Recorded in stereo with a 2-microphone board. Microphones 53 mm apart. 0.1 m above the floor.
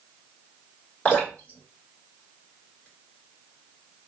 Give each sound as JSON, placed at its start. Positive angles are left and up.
{"t": 1.1, "sound": "dripping", "side_deg": 25, "distance_m": 1.7}